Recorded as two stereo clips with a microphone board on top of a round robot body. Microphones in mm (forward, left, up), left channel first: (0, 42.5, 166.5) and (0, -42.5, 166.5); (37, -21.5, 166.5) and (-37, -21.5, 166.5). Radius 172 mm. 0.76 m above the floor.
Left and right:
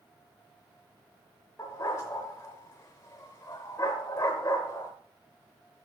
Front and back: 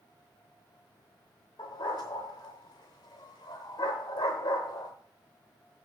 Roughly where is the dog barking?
Ahead left.